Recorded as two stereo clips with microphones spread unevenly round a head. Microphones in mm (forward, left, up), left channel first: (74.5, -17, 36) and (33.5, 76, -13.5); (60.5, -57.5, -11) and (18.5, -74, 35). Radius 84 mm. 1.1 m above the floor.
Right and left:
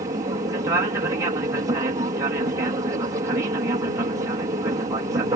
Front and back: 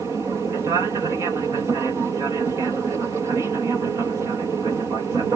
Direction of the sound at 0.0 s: 120° left.